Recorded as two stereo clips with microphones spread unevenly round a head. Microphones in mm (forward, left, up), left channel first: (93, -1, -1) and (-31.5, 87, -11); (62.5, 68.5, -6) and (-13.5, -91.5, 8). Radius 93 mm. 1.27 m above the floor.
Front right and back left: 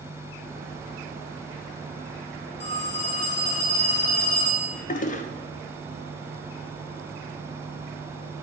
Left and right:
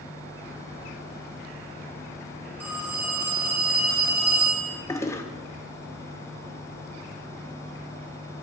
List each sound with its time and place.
2.6 s a phone ringing: 35° right, 1.8 m
4.9 s a toilet flushing: 5° right, 0.5 m